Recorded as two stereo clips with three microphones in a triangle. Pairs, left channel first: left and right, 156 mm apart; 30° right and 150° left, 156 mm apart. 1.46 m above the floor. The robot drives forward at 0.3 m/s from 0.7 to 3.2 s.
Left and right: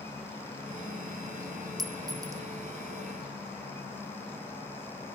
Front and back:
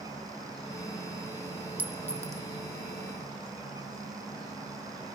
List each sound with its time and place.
1.8 s a clink: 135° right, 0.6 m; by 2.4 s 150° right, 0.7 m